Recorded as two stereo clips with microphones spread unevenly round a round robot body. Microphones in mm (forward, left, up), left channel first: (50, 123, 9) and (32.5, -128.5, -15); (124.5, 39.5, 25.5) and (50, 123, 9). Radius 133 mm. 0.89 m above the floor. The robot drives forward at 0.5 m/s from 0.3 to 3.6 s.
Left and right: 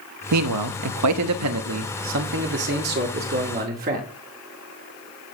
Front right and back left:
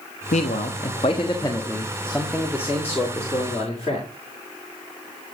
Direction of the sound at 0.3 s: 85° right.